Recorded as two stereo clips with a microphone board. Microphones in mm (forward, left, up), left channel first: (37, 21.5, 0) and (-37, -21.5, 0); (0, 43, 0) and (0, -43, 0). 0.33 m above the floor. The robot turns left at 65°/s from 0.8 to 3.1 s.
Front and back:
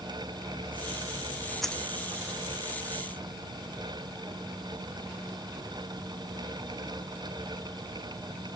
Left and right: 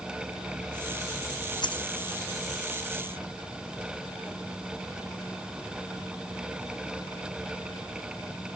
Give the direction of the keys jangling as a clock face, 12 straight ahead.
8 o'clock.